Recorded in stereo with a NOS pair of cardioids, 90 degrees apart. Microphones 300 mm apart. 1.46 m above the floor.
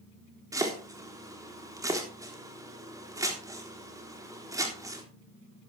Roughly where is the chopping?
Ahead.